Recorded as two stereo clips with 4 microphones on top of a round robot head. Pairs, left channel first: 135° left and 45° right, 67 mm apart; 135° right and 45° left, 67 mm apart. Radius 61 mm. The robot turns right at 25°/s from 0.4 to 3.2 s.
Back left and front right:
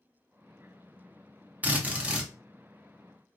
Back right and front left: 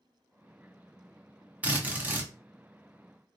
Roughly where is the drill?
Ahead.